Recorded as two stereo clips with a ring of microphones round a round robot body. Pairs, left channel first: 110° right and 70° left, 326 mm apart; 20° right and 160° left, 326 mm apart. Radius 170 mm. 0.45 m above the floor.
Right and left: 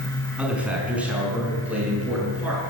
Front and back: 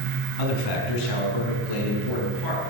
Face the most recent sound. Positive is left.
turn(degrees=-20)